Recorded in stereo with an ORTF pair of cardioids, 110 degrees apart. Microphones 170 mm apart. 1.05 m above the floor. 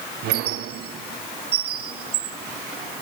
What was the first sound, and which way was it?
A squeak, 70° right.